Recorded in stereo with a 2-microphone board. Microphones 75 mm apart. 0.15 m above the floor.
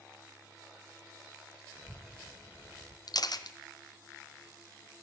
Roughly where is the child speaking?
Right.